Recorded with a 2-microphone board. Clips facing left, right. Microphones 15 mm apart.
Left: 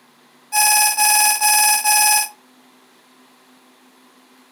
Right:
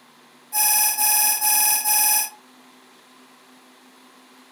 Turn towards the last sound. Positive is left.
turn(degrees=50)  # may be behind; listen again after turning